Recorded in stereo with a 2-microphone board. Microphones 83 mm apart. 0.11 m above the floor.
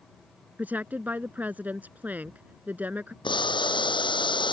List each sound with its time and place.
0.6 s a woman speaking: 20° right (ahead or behind)
3.2 s boiling: 75° left (ahead or behind)